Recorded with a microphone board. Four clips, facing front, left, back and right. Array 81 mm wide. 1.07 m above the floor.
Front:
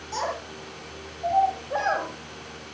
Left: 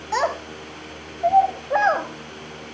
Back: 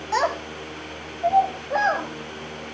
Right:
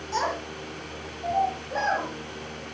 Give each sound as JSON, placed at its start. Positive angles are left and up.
{"t": 0.1, "sound": "a child speaking", "azimuth_deg": 130, "distance_m": 4.5}